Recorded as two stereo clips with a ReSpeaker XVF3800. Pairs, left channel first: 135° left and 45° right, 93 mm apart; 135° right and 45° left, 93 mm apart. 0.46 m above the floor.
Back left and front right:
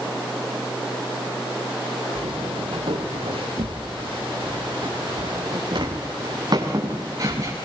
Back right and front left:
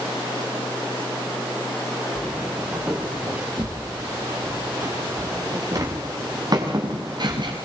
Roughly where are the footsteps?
Ahead right.